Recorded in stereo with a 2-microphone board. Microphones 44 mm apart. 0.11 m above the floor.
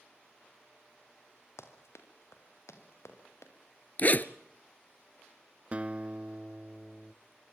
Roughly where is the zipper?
Left.